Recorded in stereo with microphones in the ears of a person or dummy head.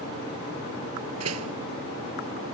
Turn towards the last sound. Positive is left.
turn(degrees=-85)